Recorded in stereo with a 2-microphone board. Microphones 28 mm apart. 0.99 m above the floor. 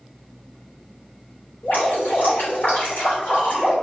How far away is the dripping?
About 2.5 m.